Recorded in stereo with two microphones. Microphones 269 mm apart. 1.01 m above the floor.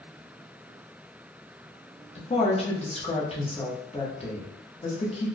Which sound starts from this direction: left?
A woman speaking, at 2.1 s.